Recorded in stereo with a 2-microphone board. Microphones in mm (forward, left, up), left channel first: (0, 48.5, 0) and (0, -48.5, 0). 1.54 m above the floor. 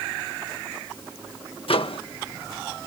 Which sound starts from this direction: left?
A microwave, at 1.7 s.